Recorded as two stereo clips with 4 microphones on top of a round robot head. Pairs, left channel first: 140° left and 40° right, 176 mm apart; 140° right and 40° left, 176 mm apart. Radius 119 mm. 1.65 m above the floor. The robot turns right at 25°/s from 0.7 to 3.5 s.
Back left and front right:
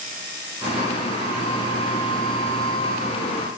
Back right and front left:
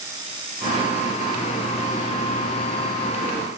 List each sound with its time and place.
Only background noise.